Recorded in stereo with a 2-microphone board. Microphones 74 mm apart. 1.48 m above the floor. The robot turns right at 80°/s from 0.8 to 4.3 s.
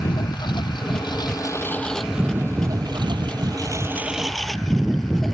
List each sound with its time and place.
0.0 s a lawn mower: 75° left (ahead or behind); by 5.3 s 5° left (ahead or behind)